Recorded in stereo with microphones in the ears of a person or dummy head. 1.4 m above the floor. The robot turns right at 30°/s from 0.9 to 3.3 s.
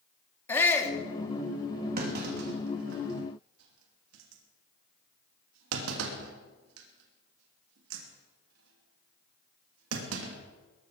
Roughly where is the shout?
Centre.